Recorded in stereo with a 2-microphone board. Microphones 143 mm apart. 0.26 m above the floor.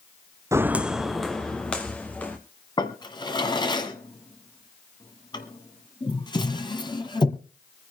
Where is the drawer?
30° left (ahead or behind), 1.4 m.